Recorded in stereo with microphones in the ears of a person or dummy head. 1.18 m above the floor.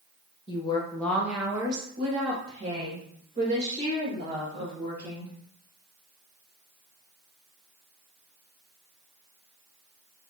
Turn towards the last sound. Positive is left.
turn(degrees=-35)  # may be behind; listen again after turning